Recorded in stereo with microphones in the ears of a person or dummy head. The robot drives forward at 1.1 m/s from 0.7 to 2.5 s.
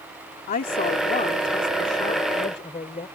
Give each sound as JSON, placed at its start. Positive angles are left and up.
{"t": 0.5, "sound": "a woman speaking", "side_deg": 40}